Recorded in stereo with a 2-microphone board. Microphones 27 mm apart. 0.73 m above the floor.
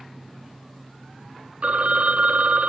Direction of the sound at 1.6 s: 65° right (ahead or behind).